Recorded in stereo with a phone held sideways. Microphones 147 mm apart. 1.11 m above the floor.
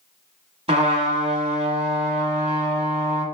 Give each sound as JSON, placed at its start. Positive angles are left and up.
{"t": 0.7, "sound": "a trumpet", "side_deg": -40, "distance_m": 1.4}